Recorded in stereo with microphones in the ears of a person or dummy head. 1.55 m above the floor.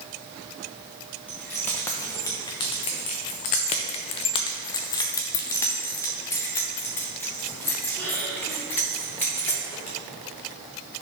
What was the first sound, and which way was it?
Keys jangling, 10° left (ahead or behind).